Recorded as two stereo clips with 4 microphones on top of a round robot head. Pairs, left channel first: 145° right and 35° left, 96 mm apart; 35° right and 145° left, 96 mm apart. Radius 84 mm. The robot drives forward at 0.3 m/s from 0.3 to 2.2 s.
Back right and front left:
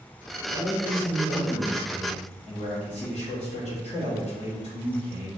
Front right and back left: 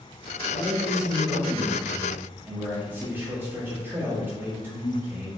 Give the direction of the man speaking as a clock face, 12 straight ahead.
4 o'clock.